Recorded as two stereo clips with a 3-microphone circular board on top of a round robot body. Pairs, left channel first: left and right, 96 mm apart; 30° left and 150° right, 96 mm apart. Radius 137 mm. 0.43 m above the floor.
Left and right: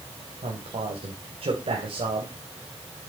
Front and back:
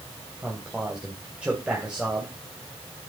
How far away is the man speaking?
About 3.5 m.